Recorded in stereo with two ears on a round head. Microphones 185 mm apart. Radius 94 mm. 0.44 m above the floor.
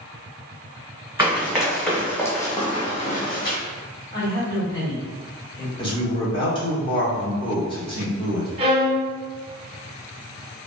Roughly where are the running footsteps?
Centre.